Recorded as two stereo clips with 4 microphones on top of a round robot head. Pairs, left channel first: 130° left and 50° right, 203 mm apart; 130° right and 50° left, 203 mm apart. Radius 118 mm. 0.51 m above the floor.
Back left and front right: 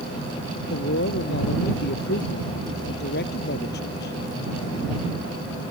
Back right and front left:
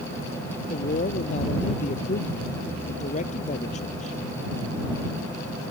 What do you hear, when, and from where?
0.7 s a man speaking: 170° left